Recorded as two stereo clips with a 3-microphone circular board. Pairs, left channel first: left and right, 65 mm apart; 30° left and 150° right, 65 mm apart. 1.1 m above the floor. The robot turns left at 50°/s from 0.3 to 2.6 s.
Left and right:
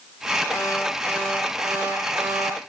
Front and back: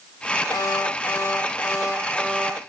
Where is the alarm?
50° left, 7 m; by 2.6 s 55° right, 7 m.